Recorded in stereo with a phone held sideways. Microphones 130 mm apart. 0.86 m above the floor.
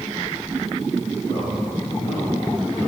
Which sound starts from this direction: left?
A man speaking, at 1.2 s.